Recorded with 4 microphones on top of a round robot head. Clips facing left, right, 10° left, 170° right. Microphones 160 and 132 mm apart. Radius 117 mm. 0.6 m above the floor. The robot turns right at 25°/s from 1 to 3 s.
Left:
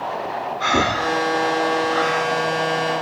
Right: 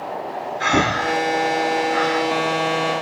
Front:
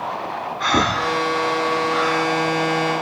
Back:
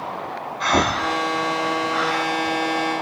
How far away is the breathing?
About 2.5 m.